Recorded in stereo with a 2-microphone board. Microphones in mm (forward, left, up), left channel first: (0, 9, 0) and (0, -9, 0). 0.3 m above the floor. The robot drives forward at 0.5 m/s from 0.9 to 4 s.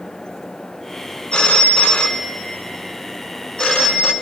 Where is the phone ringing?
70° left (ahead or behind), 1.6 m; by 4.1 s 50° left (ahead or behind), 1.9 m.